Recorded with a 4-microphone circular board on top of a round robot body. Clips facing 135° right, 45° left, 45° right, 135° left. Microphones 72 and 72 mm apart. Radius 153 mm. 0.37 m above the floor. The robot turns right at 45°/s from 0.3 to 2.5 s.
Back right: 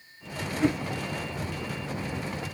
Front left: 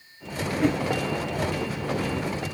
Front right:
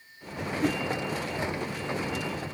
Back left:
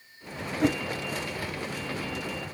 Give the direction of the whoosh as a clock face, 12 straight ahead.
8 o'clock.